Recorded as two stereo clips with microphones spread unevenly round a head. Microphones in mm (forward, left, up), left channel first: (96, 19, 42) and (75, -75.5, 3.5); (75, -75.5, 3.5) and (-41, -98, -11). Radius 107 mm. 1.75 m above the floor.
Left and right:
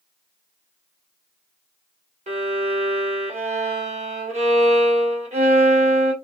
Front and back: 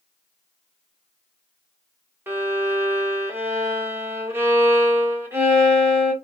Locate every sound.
2.3 s a violin: 95° right, 1.8 m